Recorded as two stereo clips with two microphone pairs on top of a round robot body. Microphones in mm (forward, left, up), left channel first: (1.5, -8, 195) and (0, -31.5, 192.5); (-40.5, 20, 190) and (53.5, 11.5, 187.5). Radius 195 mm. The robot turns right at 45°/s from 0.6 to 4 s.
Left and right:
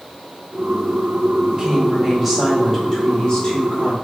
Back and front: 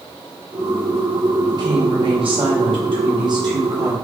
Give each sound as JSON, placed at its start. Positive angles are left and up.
{"t": 1.5, "sound": "a woman speaking", "azimuth_deg": -50, "distance_m": 2.0}